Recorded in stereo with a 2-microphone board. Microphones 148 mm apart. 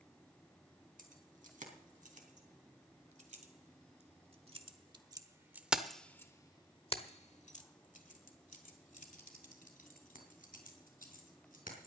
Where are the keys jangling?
65° right (ahead or behind), 3 m; by 11.9 s 70° left (ahead or behind), 3.5 m.